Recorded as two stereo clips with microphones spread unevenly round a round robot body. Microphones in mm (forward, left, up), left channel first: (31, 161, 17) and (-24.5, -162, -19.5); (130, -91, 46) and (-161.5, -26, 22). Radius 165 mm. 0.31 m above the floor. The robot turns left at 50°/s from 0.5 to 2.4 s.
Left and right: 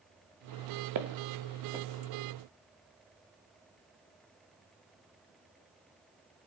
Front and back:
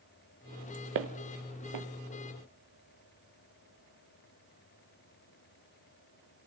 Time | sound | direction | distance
0.9 | footsteps | 145° right | 1.4 m